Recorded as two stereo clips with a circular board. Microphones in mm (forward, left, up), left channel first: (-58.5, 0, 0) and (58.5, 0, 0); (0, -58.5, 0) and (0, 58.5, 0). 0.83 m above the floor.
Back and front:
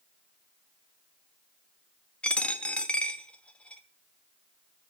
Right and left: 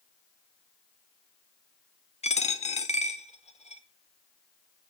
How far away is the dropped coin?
About 0.8 m.